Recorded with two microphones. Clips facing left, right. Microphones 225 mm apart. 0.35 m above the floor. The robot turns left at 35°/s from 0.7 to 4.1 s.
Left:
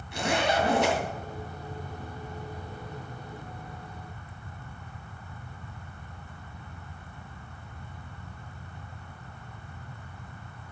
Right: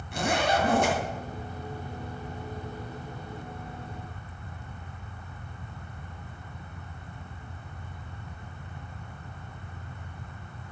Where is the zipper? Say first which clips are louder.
Even; 50° right (ahead or behind), 2.5 m; by 1.0 s 45° right (ahead or behind), 2.5 m.